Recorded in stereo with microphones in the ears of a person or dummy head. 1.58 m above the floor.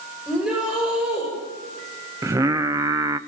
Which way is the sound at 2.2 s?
10° right (ahead or behind).